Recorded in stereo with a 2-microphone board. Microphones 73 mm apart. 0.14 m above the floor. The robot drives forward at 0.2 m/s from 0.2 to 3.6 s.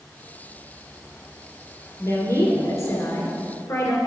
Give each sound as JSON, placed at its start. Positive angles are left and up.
{"t": 2.0, "sound": "a woman speaking", "side_deg": 45, "distance_m": 2.0}